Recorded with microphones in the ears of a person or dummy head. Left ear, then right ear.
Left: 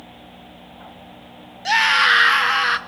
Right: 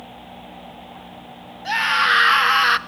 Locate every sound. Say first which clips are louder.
1.6 s a scream: left 3 dB; 25° left (ahead or behind), 1.4 m; by 2.8 s 5° right (ahead or behind), 1.6 m